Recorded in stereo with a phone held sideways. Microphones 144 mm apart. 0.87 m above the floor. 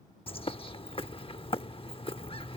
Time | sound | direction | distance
0.3 | a bird | 40° left (ahead or behind) | ?